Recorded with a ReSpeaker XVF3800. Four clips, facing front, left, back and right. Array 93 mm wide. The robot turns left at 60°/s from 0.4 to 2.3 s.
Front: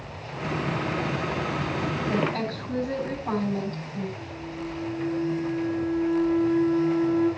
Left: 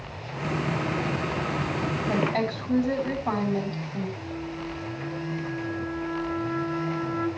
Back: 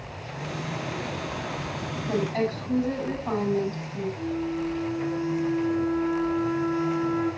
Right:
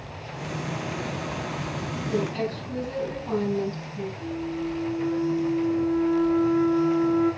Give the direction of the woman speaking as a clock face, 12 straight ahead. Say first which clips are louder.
Even, back 3 dB; 8 o'clock.